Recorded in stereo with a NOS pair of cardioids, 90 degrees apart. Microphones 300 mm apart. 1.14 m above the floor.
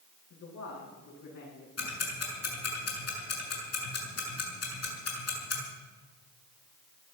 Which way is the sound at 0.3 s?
65° left.